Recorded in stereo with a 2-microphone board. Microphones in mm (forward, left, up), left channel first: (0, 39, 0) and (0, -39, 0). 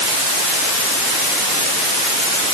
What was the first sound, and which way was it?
Only background noise.